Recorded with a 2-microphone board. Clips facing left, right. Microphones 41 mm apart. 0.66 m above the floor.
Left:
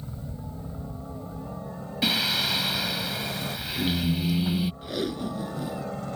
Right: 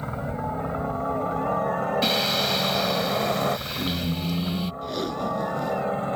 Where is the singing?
5° left (ahead or behind).